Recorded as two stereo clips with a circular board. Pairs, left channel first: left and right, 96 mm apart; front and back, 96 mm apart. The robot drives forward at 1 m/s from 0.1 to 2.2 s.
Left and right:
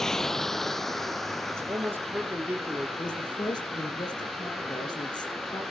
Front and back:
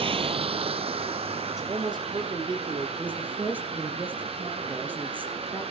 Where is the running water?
175° left, 0.8 m; by 5.7 s straight behind, 3 m.